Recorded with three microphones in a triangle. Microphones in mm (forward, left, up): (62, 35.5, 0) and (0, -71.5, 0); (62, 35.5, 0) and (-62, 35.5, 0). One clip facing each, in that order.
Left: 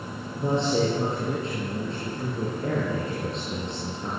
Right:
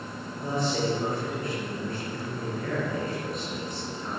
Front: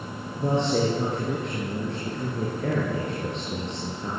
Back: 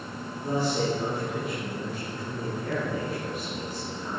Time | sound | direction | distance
0.4 | a man speaking | straight ahead | 8 m